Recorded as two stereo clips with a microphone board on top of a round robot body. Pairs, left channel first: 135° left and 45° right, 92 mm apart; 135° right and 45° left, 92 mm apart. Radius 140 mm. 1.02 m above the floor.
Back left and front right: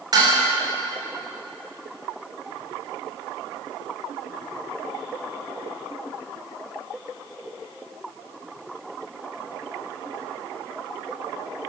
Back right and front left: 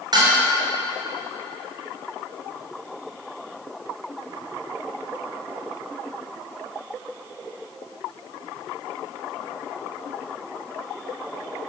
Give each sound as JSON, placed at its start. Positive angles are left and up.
{"t": 0.1, "sound": "dishes clattering", "azimuth_deg": 0, "distance_m": 3.0}